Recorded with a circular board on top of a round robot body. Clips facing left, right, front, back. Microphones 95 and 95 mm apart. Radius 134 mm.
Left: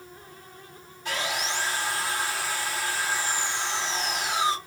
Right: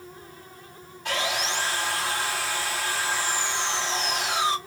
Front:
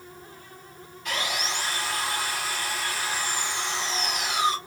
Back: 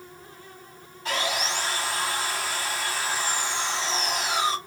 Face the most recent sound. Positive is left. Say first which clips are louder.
# right 2 dB, back 2 dB
turn(degrees=-120)